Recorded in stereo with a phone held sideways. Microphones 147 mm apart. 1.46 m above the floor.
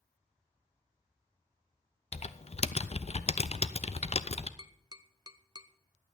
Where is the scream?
No scream in this recording.